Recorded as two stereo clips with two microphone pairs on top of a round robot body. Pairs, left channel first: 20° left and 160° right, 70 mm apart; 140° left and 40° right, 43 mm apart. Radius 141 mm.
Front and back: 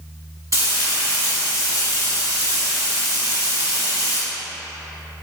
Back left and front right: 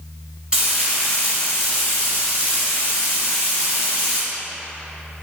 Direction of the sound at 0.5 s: 115° right.